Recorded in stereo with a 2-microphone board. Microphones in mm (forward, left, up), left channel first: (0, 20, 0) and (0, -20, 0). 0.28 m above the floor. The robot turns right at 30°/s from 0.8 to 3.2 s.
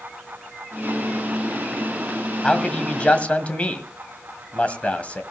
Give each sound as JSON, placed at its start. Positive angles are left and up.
{"t": 2.4, "sound": "a man speaking", "side_deg": 15, "distance_m": 1.8}